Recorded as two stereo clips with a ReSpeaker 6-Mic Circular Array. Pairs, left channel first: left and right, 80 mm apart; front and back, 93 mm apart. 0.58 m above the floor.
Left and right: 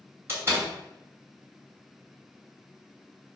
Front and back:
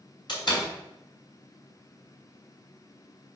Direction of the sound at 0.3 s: 35° right.